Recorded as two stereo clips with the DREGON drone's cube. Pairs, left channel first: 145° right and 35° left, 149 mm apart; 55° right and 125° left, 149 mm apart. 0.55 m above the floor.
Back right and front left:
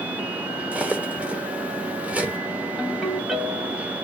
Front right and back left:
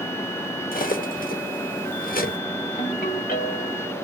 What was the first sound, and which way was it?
Cutlery clinking, 45° right.